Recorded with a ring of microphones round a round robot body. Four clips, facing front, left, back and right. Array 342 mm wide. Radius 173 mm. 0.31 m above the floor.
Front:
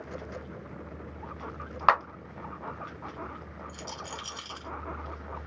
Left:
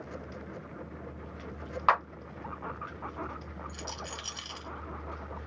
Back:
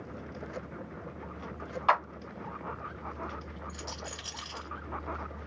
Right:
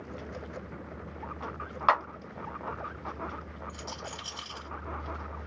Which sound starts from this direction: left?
A rattle, at 3.7 s.